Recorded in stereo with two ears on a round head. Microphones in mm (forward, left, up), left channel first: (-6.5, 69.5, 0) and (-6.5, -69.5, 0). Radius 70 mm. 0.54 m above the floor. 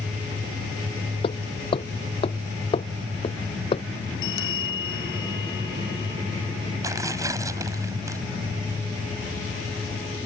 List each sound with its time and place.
1.2 s hammering: 35° left (ahead or behind)
4.2 s a bell: 85° left
6.8 s tearing paper: 20° right (ahead or behind)